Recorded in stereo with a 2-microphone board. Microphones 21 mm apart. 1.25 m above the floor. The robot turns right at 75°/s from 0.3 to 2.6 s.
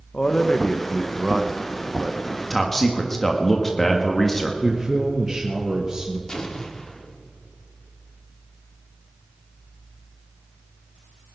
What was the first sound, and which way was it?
A man speaking, 130° left.